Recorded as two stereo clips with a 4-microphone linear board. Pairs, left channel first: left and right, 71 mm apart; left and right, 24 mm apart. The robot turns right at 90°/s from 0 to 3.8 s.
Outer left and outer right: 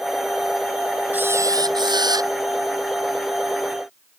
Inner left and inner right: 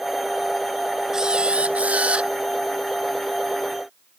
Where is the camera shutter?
160° right; by 2.3 s 50° right.